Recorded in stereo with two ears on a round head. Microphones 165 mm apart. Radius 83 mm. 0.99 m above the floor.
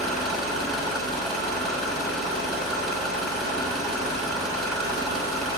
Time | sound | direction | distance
0.0 | an engine running | centre (ahead or behind) | 3.5 m